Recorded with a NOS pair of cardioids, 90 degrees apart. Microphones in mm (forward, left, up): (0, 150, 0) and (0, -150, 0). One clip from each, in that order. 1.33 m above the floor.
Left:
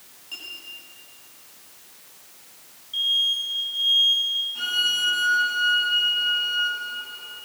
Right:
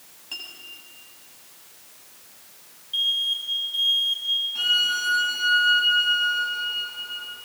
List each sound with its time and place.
0.3 s a clink: 45° right, 7.5 m
2.9 s an alarm: 40° right, 6.5 m
4.5 s a violin: 25° right, 8.5 m